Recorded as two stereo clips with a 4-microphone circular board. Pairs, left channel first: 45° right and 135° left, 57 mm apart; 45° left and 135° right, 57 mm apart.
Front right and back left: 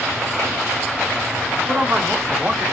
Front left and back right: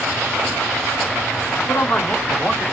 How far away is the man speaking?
About 2.5 m.